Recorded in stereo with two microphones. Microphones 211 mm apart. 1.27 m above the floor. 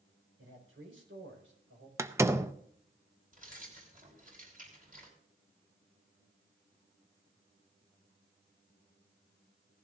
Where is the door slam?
15° right (ahead or behind), 0.7 m.